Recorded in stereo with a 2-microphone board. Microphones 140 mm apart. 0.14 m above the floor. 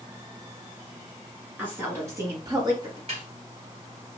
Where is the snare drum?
50° right (ahead or behind), 1.7 m.